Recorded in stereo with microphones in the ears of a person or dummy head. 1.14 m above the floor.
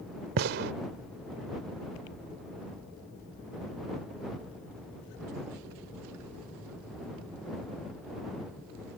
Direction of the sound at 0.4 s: 60° right (ahead or behind).